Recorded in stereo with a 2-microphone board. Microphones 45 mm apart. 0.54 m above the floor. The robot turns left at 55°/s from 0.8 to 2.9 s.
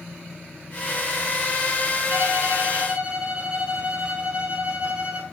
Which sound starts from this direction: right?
A violin, at 2.1 s.